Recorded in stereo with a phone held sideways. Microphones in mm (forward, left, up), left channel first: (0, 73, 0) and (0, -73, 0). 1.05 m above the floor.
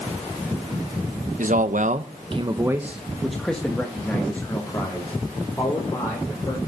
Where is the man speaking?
65° right (ahead or behind), 1.0 m; by 6.6 s 25° left (ahead or behind), 4 m.